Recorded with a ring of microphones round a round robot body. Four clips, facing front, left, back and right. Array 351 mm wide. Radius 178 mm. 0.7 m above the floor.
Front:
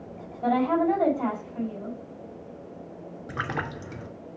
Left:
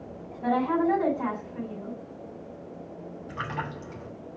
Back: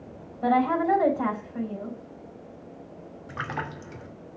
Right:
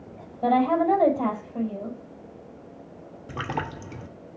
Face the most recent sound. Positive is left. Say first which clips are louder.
# right 4 dB, front 2 dB
turn(degrees=-60)